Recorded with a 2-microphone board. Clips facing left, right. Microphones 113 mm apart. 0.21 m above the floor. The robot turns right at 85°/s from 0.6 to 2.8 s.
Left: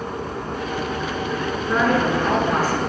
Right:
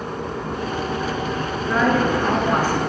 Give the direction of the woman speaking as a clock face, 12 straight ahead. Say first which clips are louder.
Right 1 dB; 7 o'clock.